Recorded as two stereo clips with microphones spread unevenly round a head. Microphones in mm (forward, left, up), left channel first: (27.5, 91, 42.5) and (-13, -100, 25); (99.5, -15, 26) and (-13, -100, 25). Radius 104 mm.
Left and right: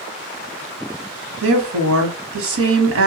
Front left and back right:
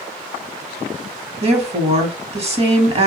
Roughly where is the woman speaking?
Right.